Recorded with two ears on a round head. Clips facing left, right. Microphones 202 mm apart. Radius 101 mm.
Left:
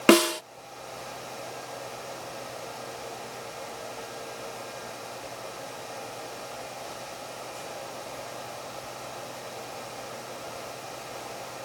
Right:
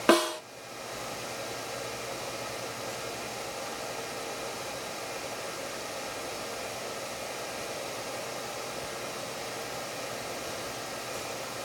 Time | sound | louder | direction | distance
0.1 | a snare drum | left 5 dB | 35° left (ahead or behind) | ?